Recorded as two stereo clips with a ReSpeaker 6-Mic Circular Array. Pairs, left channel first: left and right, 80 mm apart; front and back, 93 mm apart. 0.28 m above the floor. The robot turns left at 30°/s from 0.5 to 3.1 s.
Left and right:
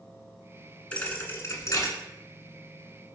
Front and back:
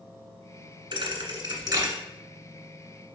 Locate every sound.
0.9 s a thud: 165° left, 1.3 m; by 1.9 s 130° left, 1.3 m